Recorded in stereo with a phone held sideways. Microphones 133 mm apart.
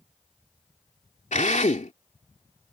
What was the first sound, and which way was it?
A drill, 65° left (ahead or behind).